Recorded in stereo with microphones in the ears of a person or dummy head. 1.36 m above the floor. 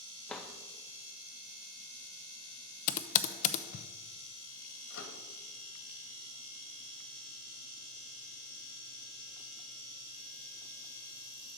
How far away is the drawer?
About 0.6 m.